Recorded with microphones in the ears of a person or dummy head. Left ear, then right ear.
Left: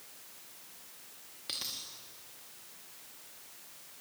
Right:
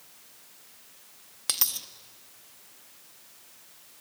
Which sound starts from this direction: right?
A dropped coin, at 1.5 s.